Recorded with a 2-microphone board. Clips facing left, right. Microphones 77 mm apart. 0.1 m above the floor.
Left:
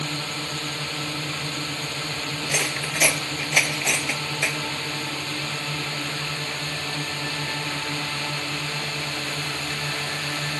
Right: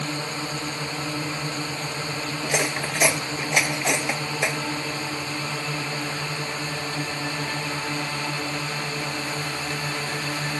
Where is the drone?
15° right (ahead or behind).